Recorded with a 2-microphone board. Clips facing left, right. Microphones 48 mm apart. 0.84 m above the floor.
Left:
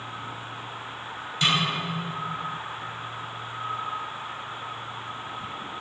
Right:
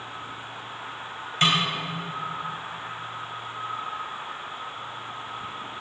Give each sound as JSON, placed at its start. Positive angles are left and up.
{"t": 1.4, "sound": "a snare drum", "side_deg": -40, "distance_m": 4.0}